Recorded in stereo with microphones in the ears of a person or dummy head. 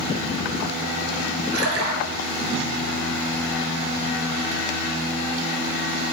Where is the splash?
70° right (ahead or behind), 0.8 m.